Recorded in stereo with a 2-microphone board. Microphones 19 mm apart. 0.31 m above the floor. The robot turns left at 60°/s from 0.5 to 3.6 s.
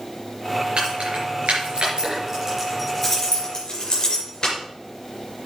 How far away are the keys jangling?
About 4.5 m.